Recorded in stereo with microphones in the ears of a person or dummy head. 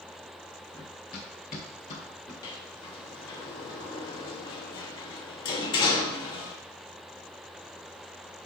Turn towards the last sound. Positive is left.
turn(degrees=25)  # may be behind; listen again after turning